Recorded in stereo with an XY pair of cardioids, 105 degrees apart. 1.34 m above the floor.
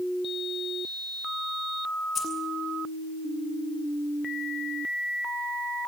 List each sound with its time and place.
2.1 s keys jangling: 45° left, 9 m